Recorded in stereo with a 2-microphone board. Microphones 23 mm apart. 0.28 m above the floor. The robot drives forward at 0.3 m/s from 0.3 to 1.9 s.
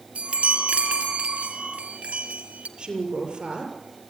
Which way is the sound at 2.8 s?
45° right (ahead or behind).